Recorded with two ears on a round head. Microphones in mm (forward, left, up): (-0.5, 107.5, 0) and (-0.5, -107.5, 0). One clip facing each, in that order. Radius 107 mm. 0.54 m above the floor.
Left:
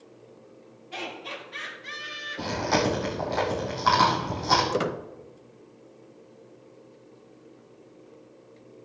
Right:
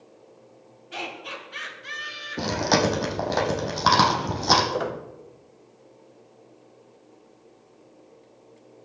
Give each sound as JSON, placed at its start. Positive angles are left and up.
{"t": 0.9, "sound": "laughter", "side_deg": -15, "distance_m": 5.0}
{"t": 2.4, "sound": "chewing", "side_deg": -70, "distance_m": 4.0}
{"t": 4.7, "sound": "a squeak", "side_deg": 40, "distance_m": 0.9}